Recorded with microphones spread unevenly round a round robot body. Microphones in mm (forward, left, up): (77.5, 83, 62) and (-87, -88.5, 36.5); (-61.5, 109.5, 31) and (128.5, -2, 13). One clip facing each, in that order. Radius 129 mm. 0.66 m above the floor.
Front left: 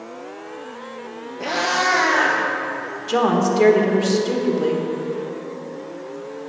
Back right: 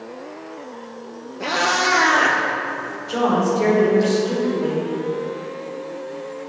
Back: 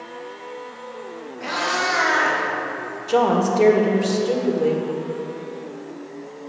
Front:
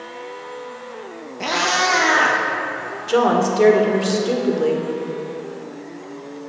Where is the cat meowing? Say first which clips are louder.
Back right 1 dB, front 4 dB; 40° right, 1.4 m; by 4.1 s 110° right, 2 m.